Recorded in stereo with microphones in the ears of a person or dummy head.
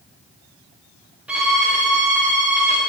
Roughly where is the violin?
Centre.